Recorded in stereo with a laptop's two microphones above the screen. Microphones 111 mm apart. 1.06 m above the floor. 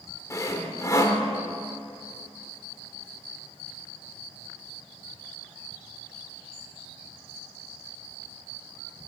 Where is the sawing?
30° left (ahead or behind), 1.5 m.